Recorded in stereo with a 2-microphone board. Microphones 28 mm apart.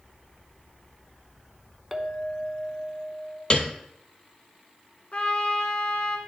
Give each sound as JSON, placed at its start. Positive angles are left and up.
{"t": 1.9, "sound": "a clink", "side_deg": 0, "distance_m": 0.8}
{"t": 3.5, "sound": "a piano", "side_deg": 35, "distance_m": 0.7}
{"t": 5.1, "sound": "a trumpet", "side_deg": 45, "distance_m": 1.0}